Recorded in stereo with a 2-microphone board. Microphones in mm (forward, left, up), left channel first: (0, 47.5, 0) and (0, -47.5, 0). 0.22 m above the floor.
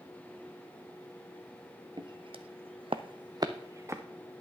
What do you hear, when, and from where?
2.0 s footsteps: 50° right (ahead or behind), 0.7 m; by 4.0 s 25° right (ahead or behind), 1.0 m